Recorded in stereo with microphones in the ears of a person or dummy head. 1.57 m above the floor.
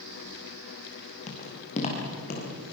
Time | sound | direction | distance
1.3 | footsteps | 35° left (ahead or behind) | 5.5 m